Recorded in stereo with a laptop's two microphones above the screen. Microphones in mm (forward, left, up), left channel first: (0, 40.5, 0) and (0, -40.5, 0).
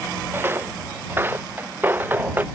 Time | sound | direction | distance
0.3 | footsteps | 30° right (ahead or behind) | ?